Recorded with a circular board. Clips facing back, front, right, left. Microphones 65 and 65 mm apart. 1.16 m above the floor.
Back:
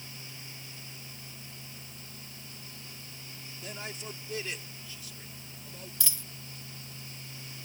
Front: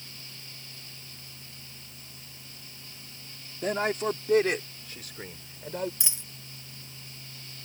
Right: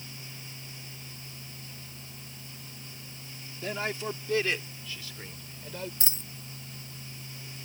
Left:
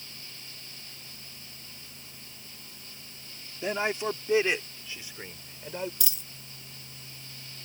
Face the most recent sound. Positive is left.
turn(degrees=-55)